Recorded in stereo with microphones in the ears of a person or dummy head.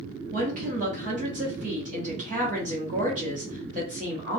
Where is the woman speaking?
35° right (ahead or behind), 1.2 m.